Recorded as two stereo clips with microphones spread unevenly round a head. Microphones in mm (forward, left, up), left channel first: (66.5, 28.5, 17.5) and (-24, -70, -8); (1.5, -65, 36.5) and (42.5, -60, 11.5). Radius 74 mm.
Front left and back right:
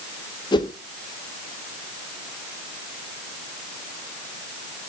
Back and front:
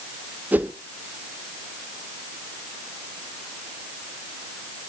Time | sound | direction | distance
0.5 | a whoosh | 15° right | 1.2 m